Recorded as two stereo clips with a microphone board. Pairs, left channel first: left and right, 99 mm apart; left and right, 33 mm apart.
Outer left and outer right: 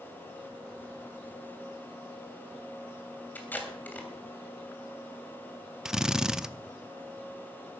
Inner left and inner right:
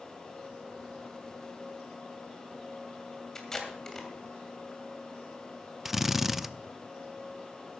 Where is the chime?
No chime in this recording.